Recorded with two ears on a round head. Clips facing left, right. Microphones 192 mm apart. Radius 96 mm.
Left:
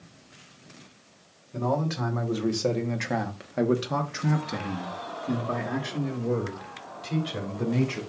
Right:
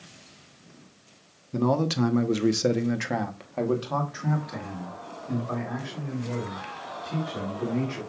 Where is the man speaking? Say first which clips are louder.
Right 4 dB; 55° right (ahead or behind), 1.1 m; by 8.0 s 65° left (ahead or behind), 3 m.